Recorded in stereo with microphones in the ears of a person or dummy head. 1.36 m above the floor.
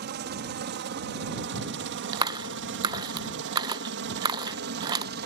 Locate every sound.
0.0 s a helicopter: 55° right (ahead or behind)
2.1 s a clap: 20° right (ahead or behind)